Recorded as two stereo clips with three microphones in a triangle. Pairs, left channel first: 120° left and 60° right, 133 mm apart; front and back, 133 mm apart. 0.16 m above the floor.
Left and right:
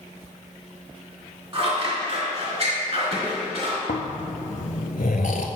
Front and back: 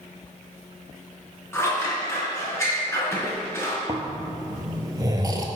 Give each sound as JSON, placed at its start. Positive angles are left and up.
{"t": 1.5, "sound": "scissors", "azimuth_deg": -65, "distance_m": 1.9}
{"t": 3.9, "sound": "snoring", "azimuth_deg": 120, "distance_m": 0.5}